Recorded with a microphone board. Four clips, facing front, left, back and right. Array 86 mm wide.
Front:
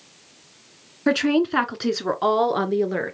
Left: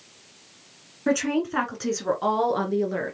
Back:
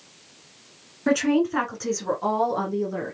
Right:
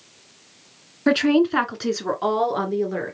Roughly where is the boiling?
I don't hear boiling.